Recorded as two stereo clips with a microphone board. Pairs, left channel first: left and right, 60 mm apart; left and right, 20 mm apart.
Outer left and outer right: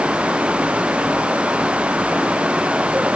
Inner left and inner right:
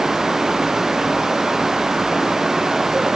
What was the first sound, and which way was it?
Only background noise.